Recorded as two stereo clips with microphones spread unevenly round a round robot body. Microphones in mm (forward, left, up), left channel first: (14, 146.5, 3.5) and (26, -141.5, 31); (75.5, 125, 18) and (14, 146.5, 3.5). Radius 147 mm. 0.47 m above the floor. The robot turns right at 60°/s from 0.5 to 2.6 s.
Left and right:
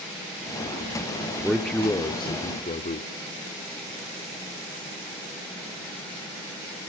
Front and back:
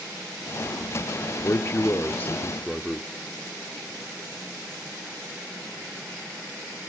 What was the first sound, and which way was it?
A man speaking, 5° left.